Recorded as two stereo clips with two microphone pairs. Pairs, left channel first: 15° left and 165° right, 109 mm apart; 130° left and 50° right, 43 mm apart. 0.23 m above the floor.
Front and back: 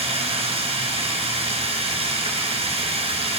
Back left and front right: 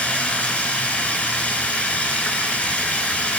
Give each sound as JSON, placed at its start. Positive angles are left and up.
{"t": 0.0, "sound": "running water", "azimuth_deg": 180, "distance_m": 2.0}